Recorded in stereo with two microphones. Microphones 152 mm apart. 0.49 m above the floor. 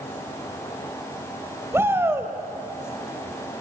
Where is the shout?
15° right (ahead or behind), 2 m.